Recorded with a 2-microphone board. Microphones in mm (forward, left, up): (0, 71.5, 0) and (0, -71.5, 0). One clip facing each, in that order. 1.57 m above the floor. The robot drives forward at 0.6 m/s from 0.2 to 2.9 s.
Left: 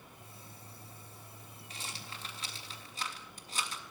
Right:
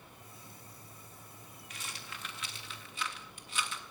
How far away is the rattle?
About 4 m.